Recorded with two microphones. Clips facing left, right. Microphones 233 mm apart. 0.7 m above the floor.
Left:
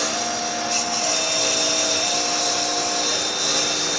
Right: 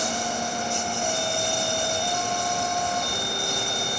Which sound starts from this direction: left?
A lawn mower, at 0.0 s.